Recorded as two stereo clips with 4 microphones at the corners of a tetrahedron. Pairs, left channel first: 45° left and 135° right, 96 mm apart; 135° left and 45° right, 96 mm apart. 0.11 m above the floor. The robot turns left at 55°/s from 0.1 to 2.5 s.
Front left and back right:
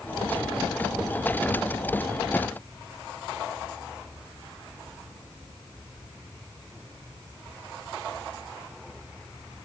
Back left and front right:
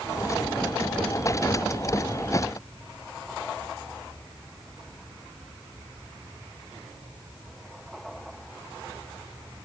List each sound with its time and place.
Only background noise.